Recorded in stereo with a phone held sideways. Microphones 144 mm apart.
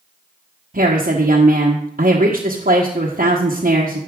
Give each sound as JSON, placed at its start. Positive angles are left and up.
{"t": 0.7, "sound": "a woman speaking", "side_deg": -75, "distance_m": 1.1}